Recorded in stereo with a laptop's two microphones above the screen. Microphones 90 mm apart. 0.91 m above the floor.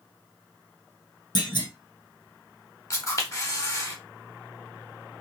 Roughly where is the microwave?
I don't hear a microwave.